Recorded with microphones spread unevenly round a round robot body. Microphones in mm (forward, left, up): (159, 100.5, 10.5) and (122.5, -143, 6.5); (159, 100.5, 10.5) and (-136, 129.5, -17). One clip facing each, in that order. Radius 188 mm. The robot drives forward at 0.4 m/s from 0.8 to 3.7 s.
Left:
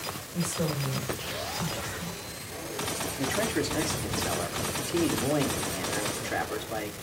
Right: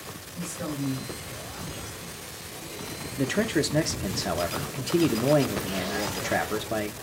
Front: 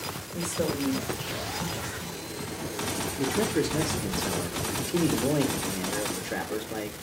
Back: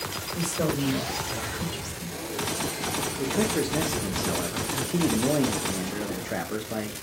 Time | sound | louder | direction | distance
0.3 | a woman speaking | left 1 dB, back 2 dB | 95° left | 3.5 m
3.2 | a man speaking | right 5 dB, even | 80° right | 0.5 m